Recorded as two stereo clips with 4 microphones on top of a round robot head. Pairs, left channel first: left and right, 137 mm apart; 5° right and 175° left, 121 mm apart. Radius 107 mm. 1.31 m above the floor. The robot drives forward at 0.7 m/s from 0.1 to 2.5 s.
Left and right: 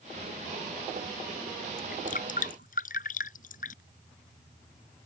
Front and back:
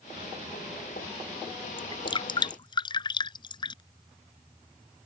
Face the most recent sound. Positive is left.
turn(degrees=45)